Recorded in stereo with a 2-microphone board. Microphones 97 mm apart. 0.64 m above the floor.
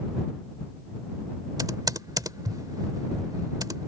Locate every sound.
1.6 s typing on a keyboard: 40° right (ahead or behind)